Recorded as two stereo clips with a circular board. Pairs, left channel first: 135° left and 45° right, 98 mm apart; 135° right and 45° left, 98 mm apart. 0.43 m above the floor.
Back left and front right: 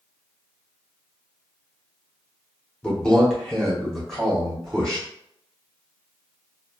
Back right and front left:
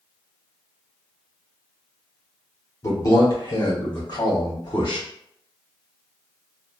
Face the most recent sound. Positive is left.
turn(degrees=-140)